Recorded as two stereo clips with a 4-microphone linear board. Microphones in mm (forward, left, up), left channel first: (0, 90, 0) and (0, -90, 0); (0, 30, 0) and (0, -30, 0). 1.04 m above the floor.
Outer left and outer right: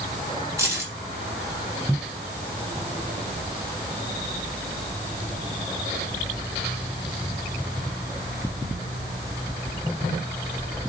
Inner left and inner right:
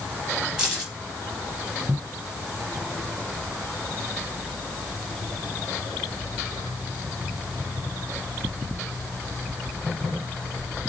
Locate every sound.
0.6 s keys jangling: 15° right (ahead or behind), 5 m